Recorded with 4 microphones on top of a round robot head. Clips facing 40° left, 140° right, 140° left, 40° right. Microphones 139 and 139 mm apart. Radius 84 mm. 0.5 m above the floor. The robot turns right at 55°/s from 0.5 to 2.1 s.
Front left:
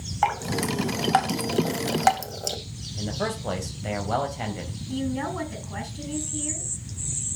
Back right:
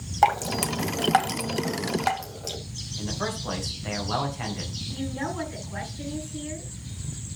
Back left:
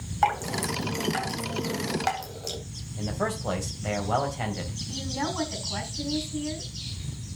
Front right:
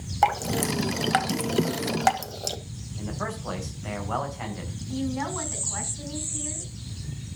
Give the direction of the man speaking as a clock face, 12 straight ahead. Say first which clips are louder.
Front left 2 dB, back left 4 dB; 9 o'clock.